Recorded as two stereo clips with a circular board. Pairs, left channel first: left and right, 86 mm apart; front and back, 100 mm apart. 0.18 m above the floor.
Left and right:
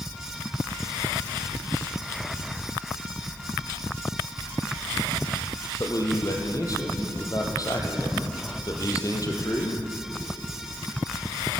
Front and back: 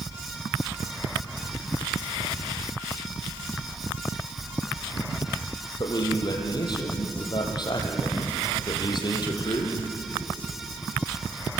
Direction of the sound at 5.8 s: 45° left.